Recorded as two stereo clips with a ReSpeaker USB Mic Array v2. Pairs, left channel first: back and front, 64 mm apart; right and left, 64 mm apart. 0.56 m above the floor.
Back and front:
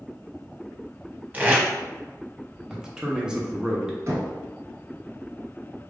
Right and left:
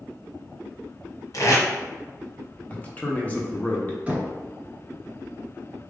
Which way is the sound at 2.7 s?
65° right.